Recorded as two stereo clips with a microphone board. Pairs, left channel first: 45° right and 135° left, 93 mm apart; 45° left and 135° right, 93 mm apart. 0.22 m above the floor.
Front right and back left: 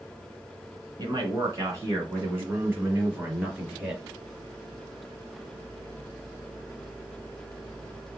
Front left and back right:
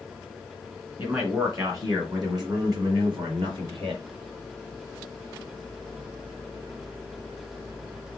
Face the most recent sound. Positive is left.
turn(degrees=-150)